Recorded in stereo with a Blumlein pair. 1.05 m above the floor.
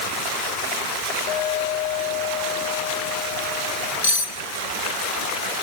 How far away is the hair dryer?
No hair dryer in this recording.